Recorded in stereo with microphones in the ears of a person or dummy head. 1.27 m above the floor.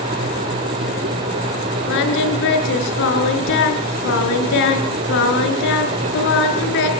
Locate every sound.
1.9 s singing: 70° left (ahead or behind), 6 m